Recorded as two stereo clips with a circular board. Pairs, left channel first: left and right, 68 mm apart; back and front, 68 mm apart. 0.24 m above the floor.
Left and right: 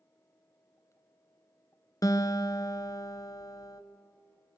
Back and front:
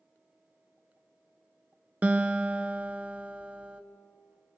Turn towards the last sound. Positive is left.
turn(degrees=70)